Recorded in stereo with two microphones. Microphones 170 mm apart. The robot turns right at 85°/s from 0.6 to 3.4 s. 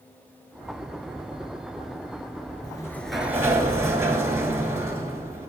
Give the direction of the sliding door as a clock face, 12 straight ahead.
7 o'clock.